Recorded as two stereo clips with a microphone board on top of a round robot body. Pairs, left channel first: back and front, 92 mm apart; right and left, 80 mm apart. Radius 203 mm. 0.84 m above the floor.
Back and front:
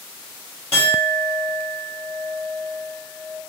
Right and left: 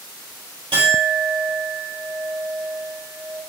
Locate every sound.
0.7 s a clink: 110° left, 2.5 m